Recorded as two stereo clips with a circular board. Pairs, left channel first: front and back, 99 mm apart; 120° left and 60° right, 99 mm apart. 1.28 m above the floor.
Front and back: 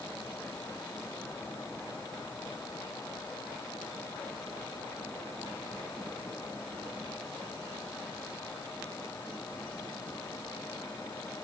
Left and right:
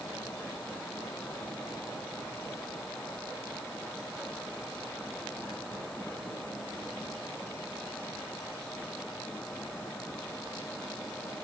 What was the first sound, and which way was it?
Only background noise.